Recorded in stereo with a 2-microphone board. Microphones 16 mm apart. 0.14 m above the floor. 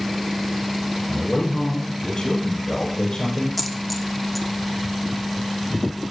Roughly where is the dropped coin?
Centre.